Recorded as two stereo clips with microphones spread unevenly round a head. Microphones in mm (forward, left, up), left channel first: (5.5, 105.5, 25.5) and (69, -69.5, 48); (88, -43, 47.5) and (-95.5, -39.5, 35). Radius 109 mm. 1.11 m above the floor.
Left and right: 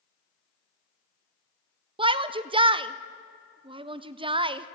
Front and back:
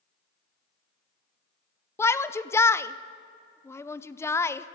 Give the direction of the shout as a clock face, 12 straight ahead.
2 o'clock.